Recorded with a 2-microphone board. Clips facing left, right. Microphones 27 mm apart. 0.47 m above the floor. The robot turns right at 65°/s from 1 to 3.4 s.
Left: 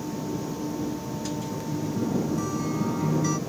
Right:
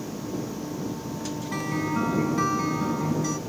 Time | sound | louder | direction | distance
1.5 | a guitar | right 3 dB | 105° right | ?